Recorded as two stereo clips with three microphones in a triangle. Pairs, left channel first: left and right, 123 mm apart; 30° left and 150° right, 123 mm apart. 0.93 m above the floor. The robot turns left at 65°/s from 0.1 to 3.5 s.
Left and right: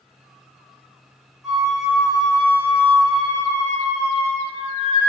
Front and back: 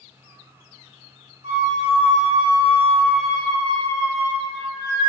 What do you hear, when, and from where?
1.4 s a flute: 175° right, 1.8 m; by 5.1 s 50° left, 1.8 m